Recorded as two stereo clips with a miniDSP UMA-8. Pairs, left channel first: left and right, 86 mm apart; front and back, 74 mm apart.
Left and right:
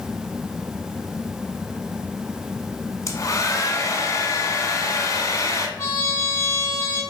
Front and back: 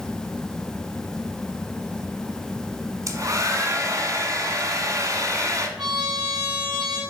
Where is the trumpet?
145° left, 3 m.